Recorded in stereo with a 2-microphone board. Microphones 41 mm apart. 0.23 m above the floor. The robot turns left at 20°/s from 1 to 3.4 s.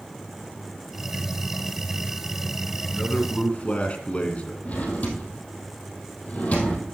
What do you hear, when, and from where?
2.9 s a man speaking: 40° left (ahead or behind), 2.5 m; by 4.5 s 30° left (ahead or behind), 2.5 m
4.7 s a drawer: 35° left (ahead or behind), 3 m